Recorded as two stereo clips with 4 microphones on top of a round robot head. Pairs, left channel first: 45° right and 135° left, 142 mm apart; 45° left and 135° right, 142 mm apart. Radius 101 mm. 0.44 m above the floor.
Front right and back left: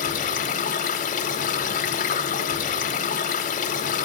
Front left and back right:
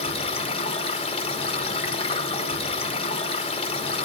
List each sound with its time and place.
0.0 s running water: 10° right, 0.8 m